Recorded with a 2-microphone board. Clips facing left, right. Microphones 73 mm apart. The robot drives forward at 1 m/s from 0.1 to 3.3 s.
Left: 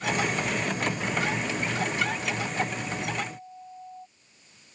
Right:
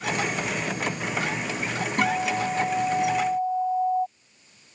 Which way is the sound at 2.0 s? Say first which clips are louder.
Right 5 dB; 60° right (ahead or behind).